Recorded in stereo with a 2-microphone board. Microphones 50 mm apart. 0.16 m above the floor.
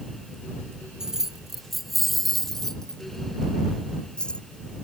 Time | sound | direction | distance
1.0 | keys jangling | 10° right (ahead or behind) | ?